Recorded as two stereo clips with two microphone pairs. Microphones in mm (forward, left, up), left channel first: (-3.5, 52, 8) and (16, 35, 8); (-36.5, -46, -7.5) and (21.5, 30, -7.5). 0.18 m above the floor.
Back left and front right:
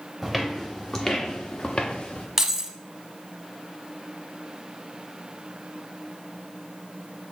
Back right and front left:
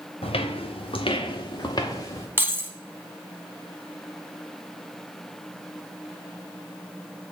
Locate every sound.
0.2 s footsteps: 125° right, 1.1 m; by 2.3 s 175° left, 1.4 m
2.4 s keys jangling: 20° left, 0.7 m